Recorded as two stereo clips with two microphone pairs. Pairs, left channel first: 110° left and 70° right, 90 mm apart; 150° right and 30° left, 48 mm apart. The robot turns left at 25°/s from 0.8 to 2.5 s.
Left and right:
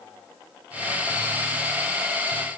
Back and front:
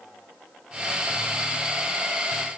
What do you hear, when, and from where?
Only background noise.